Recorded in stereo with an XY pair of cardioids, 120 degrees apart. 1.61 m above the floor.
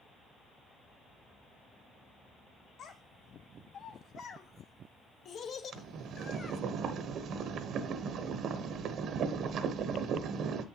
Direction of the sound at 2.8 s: 60° left.